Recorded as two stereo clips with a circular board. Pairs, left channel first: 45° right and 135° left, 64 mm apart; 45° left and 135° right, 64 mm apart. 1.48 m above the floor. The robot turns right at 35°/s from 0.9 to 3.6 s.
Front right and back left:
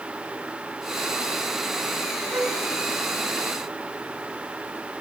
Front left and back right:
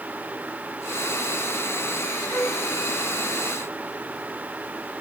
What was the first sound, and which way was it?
A flute, 85° left.